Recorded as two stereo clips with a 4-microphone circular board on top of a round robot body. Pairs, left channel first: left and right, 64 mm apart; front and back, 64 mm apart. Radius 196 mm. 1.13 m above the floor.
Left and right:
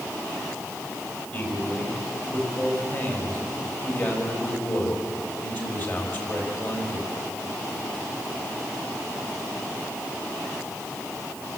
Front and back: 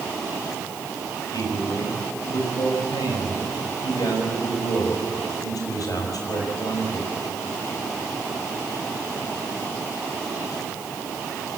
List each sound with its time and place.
1.3 s a man speaking: 35° left, 5.5 m